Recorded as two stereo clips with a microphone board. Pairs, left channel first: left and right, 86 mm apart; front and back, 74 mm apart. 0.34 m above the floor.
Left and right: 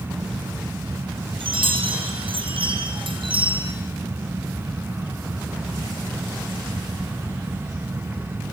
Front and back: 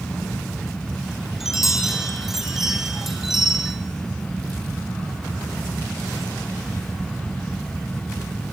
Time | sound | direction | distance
1.4 | a chime | 95° right | 3 m